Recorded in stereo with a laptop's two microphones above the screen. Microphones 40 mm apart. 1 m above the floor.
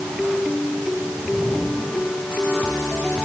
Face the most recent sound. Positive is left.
No sound to turn to.